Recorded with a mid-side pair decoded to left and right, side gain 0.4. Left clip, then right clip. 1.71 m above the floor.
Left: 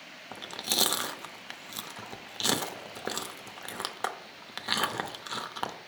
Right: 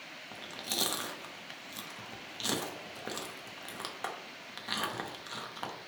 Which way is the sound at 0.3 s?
50° left.